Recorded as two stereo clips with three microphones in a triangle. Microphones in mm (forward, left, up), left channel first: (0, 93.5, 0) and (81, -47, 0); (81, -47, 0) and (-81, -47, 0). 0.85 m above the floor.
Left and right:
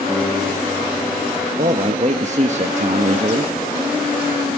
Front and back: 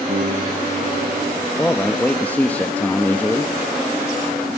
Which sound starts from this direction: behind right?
A piano, at 0.1 s.